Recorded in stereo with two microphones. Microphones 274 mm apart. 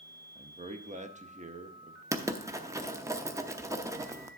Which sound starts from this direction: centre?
Writing, at 2.1 s.